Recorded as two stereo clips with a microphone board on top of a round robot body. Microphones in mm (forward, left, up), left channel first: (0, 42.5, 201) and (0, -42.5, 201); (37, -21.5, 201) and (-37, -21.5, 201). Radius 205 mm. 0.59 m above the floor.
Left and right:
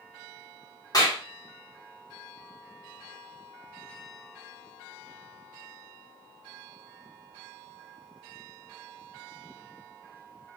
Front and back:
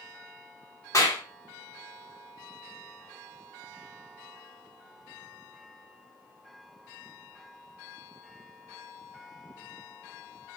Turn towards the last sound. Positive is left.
turn(degrees=50)